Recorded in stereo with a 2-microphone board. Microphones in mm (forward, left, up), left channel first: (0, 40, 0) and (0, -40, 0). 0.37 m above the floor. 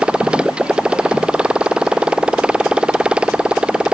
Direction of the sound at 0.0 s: 15° right (ahead or behind).